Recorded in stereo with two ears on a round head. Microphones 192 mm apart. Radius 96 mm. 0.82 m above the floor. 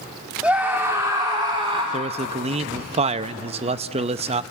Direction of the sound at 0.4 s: 5° right (ahead or behind).